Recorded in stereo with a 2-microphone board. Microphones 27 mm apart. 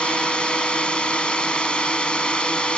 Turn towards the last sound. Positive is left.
turn(degrees=40)  # may be behind; listen again after turning